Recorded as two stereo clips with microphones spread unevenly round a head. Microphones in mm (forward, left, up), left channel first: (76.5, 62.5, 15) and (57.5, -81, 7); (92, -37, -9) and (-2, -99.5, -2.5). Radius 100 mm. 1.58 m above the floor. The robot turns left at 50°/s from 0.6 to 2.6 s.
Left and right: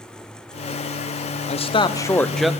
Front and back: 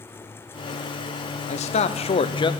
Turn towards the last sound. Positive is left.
turn(degrees=-15)